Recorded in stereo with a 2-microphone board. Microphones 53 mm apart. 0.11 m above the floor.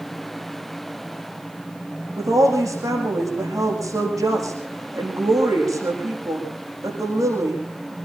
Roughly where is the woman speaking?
Right.